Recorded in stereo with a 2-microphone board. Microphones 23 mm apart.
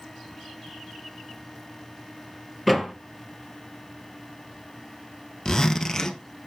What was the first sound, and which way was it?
A door slam, 5° right (ahead or behind).